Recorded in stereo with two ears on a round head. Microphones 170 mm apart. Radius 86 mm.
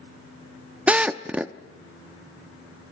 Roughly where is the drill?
Centre.